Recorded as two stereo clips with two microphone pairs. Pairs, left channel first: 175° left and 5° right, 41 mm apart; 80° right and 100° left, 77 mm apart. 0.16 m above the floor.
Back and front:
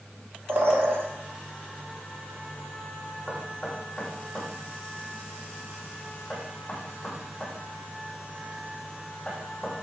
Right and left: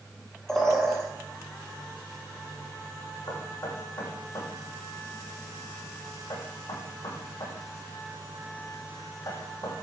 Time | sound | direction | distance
0.5 | a bird | straight ahead | 3 m
3.3 | knocking | 115° right | 7 m